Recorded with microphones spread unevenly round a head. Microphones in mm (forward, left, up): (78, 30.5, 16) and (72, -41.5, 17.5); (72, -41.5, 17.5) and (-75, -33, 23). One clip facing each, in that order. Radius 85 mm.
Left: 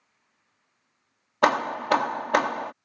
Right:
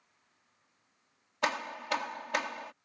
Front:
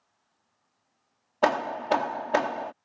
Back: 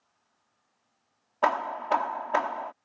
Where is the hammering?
55° left.